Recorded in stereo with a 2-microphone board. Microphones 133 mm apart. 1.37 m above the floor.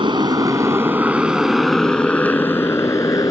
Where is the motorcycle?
35° right (ahead or behind); by 3.3 s 25° left (ahead or behind).